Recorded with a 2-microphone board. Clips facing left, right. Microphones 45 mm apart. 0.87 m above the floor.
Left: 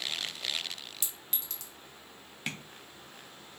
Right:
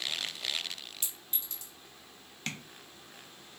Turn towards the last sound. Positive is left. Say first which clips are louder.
# left 1 dB
turn(degrees=10)  # may be behind; listen again after turning